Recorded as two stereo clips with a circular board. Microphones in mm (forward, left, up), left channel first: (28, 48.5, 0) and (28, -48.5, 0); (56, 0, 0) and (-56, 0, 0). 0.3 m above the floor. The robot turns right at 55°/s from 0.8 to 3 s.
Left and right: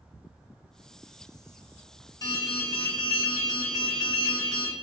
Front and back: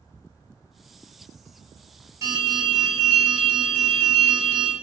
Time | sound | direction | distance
2.2 | an alarm | 125° left | 1.0 m